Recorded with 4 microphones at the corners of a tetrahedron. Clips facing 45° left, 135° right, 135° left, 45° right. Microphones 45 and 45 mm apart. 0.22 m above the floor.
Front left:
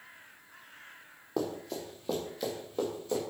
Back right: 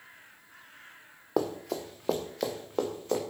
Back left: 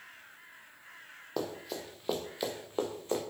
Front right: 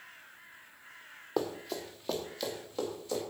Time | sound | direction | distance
1.4 | running footsteps | 120° right | 1.9 m